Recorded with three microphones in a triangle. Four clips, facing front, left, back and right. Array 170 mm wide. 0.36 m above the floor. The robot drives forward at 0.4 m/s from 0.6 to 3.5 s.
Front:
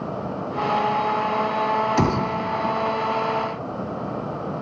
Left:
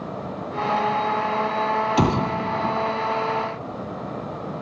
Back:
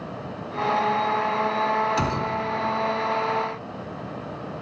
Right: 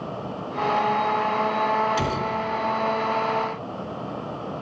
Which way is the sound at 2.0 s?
50° left.